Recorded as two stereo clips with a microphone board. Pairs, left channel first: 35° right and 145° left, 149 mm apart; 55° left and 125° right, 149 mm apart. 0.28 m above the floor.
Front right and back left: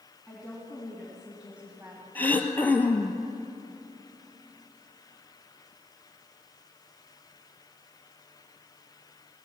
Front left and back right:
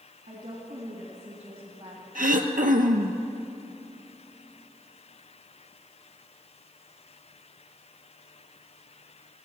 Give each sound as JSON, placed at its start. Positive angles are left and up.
{"t": 0.3, "sound": "a woman speaking", "azimuth_deg": -120, "distance_m": 2.5}
{"t": 2.1, "sound": "throat clearing", "azimuth_deg": -110, "distance_m": 1.0}